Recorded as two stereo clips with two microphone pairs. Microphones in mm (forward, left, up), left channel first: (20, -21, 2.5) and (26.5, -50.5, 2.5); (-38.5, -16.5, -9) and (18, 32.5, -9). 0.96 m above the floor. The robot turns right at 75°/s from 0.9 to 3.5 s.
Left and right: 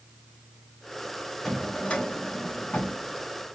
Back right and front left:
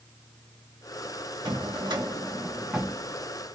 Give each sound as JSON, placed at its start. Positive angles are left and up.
{"t": 1.4, "sound": "a drawer", "azimuth_deg": 20, "distance_m": 0.8}